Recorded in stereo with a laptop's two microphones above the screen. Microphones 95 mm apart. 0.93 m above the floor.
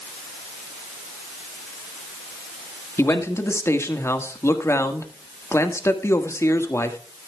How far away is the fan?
I don't hear a fan.